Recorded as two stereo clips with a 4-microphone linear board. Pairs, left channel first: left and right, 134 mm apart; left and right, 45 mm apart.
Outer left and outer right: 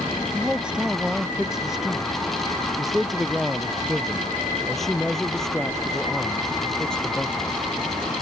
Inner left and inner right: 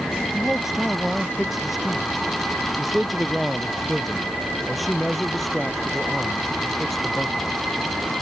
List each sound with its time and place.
0.3 s a man speaking: 5° right (ahead or behind); by 7.6 s 5° left (ahead or behind)